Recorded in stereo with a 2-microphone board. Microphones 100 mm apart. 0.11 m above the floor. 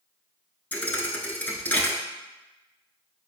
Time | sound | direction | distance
0.7 | a thud | 20° left (ahead or behind) | 0.7 m